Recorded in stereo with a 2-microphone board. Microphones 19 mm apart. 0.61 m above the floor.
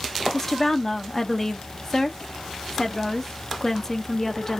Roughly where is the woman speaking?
Centre.